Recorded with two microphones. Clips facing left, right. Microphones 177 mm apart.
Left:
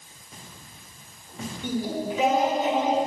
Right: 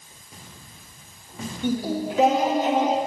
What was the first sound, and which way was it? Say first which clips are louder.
Singing: right 3 dB; 80° right.